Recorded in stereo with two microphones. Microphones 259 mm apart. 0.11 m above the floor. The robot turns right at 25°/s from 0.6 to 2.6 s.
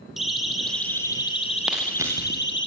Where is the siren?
Centre (ahead or behind), 5.5 m; by 2.7 s 45° left (ahead or behind), 4 m.